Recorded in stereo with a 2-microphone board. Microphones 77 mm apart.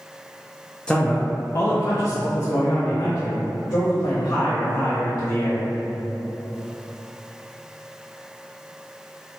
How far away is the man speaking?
About 0.6 m.